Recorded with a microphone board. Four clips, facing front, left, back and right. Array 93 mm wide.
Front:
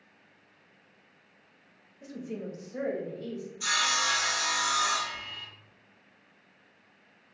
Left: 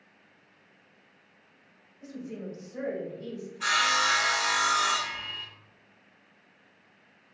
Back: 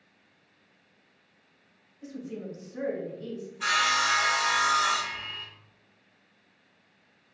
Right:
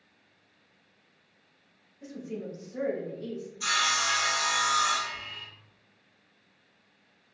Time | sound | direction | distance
2.0 | a woman speaking | 5° right | 1.7 m
3.6 | sawing | 135° left | 0.8 m